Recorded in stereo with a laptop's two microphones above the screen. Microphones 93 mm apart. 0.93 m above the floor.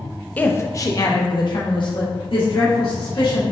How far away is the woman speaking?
About 0.6 m.